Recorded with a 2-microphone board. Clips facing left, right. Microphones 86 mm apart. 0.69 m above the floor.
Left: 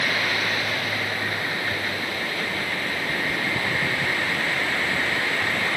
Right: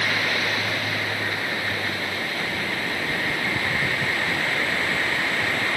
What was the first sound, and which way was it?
Only background noise.